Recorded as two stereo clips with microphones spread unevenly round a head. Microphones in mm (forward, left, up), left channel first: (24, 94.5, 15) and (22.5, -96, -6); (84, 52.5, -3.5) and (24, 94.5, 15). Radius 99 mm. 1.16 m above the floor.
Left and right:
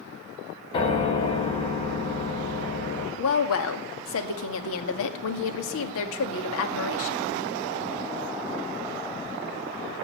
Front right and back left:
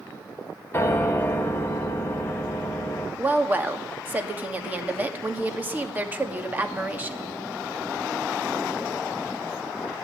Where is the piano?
25° left, 2.5 m.